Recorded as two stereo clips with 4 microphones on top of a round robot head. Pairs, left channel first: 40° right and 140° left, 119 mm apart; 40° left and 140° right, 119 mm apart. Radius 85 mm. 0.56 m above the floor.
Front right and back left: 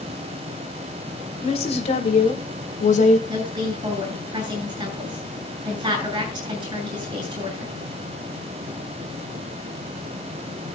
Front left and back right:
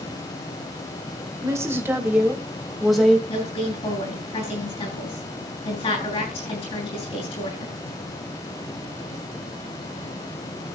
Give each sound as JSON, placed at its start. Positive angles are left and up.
{"t": 1.4, "sound": "a woman speaking", "azimuth_deg": -75, "distance_m": 3.0}
{"t": 3.3, "sound": "a woman speaking", "azimuth_deg": 85, "distance_m": 8.5}